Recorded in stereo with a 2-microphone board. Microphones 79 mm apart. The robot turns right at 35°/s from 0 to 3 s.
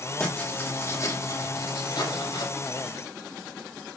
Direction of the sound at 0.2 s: 10° left.